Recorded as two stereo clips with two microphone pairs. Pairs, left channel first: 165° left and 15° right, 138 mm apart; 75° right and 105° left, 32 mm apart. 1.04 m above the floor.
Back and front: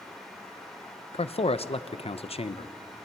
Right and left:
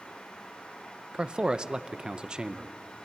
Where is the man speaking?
145° left, 0.6 m.